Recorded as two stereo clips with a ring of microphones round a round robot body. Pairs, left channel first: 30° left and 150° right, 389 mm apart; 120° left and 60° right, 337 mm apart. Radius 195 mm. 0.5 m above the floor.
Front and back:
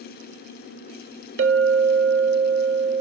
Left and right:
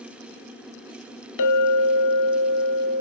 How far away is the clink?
About 1.1 m.